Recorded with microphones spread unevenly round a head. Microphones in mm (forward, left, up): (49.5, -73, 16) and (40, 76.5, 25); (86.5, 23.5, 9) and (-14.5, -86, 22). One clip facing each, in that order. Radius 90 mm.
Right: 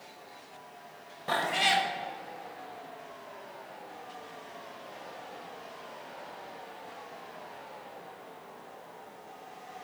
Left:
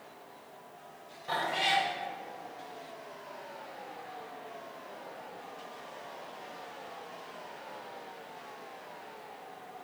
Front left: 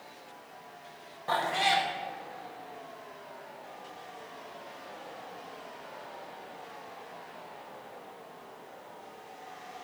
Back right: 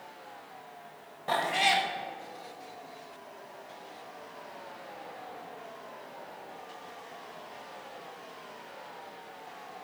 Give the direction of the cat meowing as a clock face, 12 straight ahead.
2 o'clock.